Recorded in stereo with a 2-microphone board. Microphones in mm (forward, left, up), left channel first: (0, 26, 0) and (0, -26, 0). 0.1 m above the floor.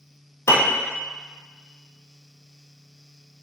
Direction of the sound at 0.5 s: 70° left (ahead or behind).